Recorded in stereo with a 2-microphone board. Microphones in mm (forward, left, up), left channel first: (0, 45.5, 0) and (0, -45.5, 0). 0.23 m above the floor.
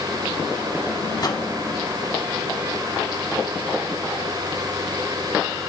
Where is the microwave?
45° left (ahead or behind), 1.2 m.